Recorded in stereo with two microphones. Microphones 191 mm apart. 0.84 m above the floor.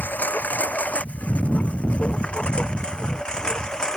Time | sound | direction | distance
0.0 | a lawn mower | 10° left (ahead or behind) | ?